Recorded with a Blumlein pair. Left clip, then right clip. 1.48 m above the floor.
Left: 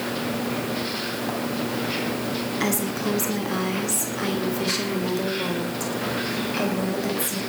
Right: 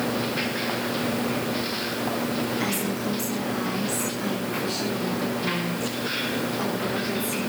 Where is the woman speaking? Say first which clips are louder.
Left 2 dB; 20° left, 3.5 m; by 7.4 s 35° left, 8 m.